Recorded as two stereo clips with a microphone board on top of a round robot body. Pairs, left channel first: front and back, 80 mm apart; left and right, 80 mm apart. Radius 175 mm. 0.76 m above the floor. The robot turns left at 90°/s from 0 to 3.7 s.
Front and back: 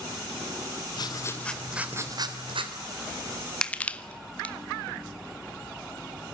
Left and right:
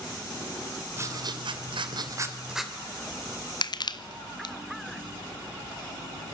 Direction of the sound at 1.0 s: 30° right.